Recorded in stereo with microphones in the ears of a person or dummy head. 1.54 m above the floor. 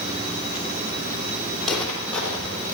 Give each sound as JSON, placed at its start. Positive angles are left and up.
{"t": 1.6, "sound": "footsteps", "side_deg": 5, "distance_m": 4.0}